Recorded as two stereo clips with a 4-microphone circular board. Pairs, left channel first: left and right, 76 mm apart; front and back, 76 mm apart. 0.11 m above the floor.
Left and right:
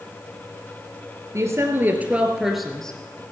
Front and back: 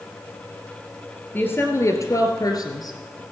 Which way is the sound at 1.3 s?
60° right.